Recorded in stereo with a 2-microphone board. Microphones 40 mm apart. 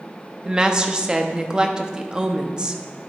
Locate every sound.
0.5 s a woman speaking: 20° right (ahead or behind), 0.7 m